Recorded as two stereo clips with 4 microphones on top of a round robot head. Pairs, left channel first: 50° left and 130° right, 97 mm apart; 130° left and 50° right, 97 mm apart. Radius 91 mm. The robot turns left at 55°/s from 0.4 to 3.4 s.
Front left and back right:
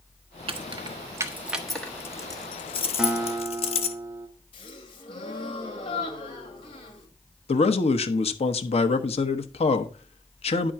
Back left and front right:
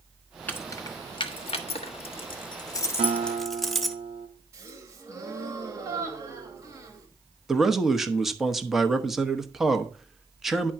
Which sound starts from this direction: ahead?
A gasp, at 4.5 s.